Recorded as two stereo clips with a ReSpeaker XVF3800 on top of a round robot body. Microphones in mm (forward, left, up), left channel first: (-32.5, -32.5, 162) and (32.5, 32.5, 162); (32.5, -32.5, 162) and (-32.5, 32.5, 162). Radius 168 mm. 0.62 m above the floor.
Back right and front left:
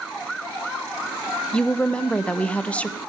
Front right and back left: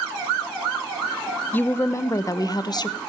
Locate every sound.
1.5 s a woman speaking: 70° right, 1.2 m; by 3.0 s 60° right, 1.8 m